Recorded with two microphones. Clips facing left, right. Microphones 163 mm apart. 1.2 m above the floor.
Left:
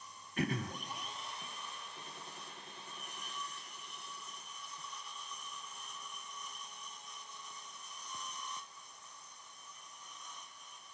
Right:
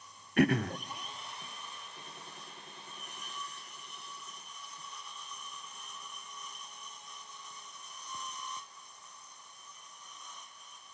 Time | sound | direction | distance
0.4 | throat clearing | 70° right (ahead or behind) | 0.5 m